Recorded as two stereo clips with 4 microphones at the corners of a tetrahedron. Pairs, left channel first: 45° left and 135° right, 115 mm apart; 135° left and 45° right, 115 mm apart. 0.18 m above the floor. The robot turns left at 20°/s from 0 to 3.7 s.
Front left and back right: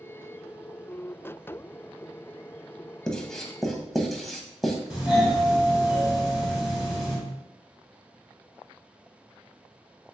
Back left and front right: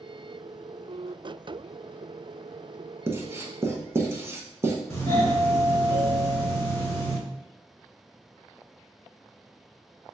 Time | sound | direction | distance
3.1 | writing | 30° right | 0.7 m
4.9 | a doorbell | 145° left | 1.7 m